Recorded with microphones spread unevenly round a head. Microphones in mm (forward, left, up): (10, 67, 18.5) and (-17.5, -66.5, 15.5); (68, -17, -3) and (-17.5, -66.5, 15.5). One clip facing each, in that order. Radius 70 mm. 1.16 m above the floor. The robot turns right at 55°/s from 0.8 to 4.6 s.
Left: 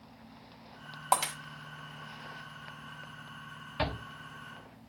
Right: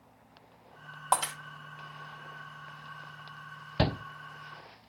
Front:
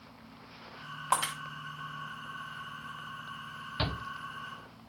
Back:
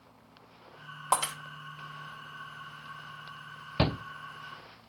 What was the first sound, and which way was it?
Breaking glass, 155° left.